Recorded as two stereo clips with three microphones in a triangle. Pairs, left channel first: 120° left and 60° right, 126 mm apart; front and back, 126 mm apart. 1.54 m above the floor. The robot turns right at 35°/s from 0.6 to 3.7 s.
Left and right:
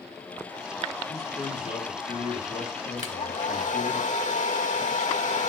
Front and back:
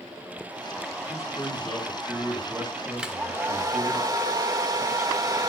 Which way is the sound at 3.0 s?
95° left.